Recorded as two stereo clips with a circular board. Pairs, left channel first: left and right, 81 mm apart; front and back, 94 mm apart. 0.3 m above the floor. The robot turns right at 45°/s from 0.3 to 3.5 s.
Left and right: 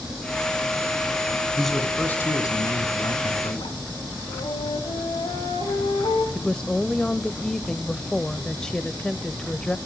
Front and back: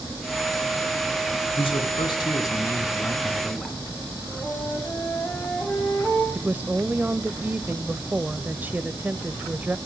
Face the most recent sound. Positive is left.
turn(degrees=160)